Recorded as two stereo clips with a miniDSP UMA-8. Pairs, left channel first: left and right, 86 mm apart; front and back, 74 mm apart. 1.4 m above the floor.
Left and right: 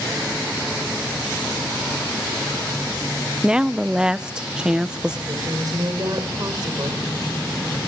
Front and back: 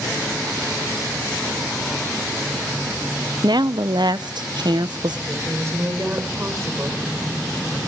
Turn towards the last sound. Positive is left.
turn(degrees=-130)